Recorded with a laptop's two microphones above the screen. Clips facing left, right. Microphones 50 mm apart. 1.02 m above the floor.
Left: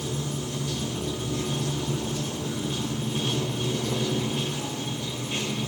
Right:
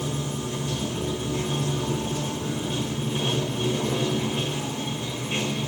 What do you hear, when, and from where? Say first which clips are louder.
0.0 s running water: right 2 dB; 30° right (ahead or behind), 3.5 m